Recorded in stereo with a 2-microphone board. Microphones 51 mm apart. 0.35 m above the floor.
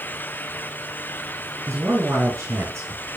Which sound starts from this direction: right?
A man speaking, at 1.7 s.